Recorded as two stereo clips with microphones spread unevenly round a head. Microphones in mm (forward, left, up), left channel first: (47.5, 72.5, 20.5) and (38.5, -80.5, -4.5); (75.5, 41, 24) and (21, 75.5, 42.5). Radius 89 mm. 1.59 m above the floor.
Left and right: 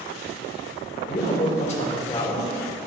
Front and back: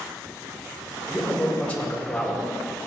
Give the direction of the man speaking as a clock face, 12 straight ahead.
11 o'clock.